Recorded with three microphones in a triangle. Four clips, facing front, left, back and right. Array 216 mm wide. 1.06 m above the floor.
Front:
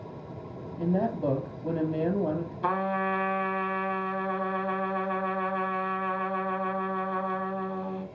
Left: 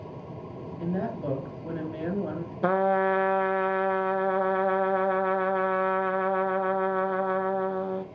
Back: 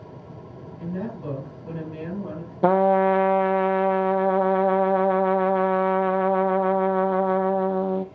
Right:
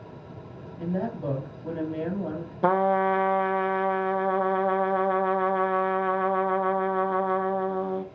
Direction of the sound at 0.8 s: 10° left.